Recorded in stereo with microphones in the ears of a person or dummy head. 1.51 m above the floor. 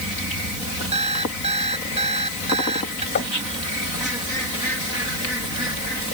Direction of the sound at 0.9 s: 35° right (ahead or behind).